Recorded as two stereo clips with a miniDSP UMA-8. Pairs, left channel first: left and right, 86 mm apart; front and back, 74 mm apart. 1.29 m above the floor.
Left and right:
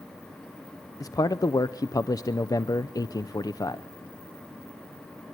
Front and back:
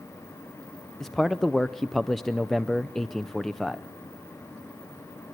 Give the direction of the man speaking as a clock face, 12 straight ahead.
9 o'clock.